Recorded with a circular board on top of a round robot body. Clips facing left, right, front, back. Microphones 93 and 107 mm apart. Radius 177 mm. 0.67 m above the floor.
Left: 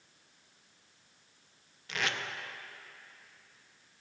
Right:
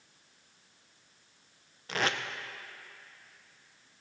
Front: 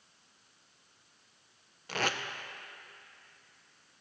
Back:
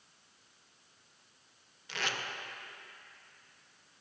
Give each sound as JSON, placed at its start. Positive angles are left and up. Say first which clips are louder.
{"t": 1.9, "sound": "tape being pulled", "louder": "right 4 dB, front 5 dB", "azimuth_deg": -40, "distance_m": 0.7}